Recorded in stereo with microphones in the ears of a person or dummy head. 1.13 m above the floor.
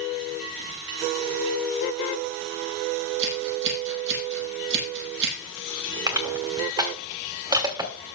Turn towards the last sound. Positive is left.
turn(degrees=-15)  # may be behind; listen again after turning